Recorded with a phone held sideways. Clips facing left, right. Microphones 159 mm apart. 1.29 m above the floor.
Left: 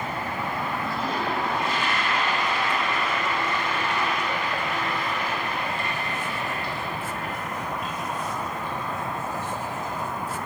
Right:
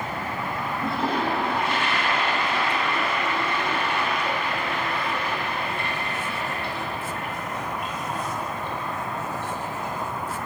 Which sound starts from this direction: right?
A toilet flushing, at 0.8 s.